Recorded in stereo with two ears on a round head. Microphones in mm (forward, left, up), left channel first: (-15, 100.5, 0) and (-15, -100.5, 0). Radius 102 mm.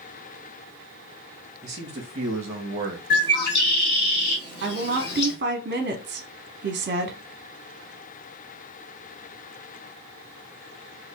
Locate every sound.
1.6 s a man speaking: 30° right (ahead or behind), 1.7 m; by 3.0 s 35° right (ahead or behind), 1.0 m
3.1 s a bird: 50° left (ahead or behind), 1.0 m
4.6 s a woman speaking: 40° right (ahead or behind), 0.7 m